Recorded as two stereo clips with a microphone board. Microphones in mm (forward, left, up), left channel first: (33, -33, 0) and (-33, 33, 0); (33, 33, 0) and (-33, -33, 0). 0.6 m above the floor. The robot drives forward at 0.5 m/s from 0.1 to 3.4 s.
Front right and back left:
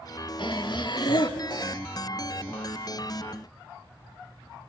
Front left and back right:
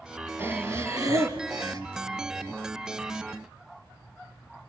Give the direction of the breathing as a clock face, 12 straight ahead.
2 o'clock.